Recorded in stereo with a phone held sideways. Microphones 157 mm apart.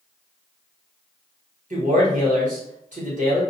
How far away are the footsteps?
No footsteps in this recording.